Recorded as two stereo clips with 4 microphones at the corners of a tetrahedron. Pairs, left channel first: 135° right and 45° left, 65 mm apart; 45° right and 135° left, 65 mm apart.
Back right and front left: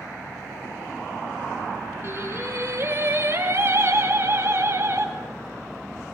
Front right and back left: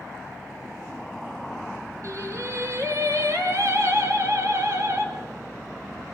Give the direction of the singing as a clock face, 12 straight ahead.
9 o'clock.